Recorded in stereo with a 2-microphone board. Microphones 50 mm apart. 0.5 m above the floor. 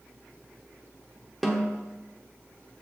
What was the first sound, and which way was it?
A snare drum, centre (ahead or behind).